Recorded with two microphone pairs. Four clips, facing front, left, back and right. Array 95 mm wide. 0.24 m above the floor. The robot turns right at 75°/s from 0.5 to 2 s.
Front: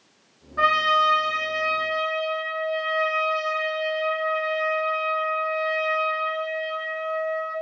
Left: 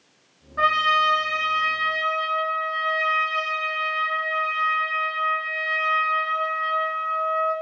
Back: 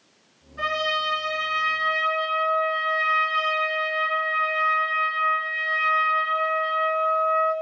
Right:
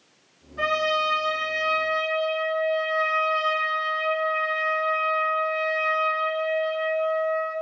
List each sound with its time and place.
0.6 s a trumpet: 45° left, 2.5 m; by 7.5 s 150° left, 2.5 m